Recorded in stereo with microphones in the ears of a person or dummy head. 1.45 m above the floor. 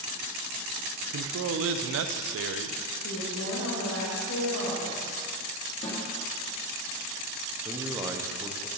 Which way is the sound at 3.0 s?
75° left (ahead or behind).